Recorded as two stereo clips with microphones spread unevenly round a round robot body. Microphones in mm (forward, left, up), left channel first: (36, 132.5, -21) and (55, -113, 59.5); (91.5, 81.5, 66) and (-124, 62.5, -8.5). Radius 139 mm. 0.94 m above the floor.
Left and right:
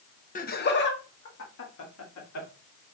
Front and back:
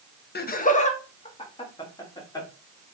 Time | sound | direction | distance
0.3 | laughter | 55° left | 0.9 m